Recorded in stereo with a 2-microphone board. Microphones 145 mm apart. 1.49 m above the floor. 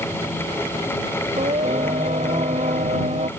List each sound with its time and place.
1.4 s singing: 55° right (ahead or behind)